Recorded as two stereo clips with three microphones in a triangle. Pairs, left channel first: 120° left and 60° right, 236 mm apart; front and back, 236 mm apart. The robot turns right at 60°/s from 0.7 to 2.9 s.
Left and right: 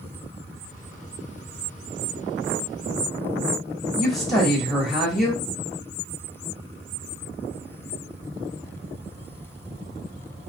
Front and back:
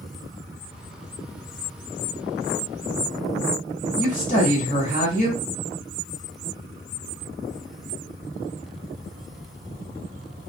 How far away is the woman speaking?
About 1.1 m.